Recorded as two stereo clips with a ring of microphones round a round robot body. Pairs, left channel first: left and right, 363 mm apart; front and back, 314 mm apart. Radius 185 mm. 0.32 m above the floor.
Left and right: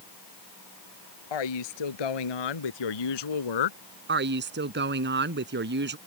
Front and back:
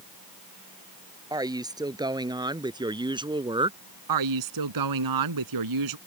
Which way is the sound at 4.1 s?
150° right.